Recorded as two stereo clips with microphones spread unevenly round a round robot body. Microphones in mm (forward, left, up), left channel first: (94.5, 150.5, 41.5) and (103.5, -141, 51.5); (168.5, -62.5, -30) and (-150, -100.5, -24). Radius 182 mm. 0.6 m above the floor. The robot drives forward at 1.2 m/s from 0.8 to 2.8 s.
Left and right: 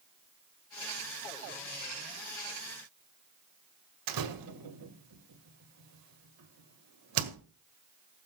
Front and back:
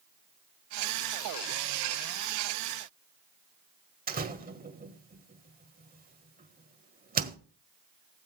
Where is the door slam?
110° right, 1.7 m.